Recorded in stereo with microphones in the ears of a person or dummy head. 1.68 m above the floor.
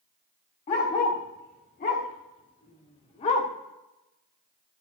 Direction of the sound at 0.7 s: 25° left (ahead or behind).